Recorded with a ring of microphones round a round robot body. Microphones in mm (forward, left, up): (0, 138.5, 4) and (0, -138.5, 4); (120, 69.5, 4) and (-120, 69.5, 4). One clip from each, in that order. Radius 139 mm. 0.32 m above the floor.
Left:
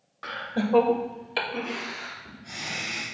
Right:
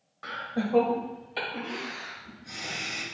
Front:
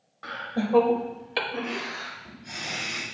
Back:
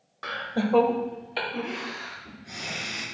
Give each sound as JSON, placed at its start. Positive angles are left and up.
{"t": 0.2, "sound": "laughter", "azimuth_deg": 160, "distance_m": 1.1}